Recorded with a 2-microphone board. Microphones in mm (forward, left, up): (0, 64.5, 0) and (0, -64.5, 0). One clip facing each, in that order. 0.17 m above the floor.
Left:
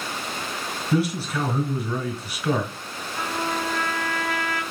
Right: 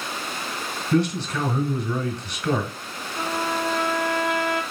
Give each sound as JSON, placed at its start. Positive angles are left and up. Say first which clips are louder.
{"t": 0.9, "sound": "a man speaking", "louder": "right 2 dB", "side_deg": 5, "distance_m": 1.6}
{"t": 3.2, "sound": "a trumpet", "louder": "right 2 dB", "side_deg": -20, "distance_m": 1.6}